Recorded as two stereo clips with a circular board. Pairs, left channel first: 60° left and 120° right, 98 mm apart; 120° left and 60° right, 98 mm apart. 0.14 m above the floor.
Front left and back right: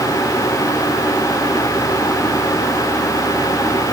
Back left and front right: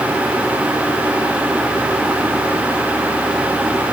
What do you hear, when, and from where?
Only background noise.